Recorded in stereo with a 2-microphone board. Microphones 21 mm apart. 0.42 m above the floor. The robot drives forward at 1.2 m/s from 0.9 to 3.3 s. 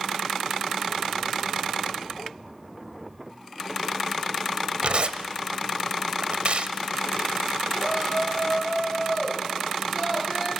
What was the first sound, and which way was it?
Tearing paper, 60° right (ahead or behind).